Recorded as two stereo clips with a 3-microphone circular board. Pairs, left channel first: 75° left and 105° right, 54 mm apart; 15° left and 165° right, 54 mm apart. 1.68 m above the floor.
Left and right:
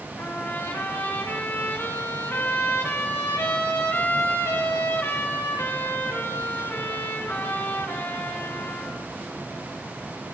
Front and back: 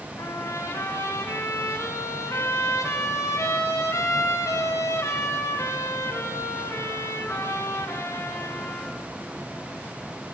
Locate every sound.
0.2 s a trumpet: 30° left, 4 m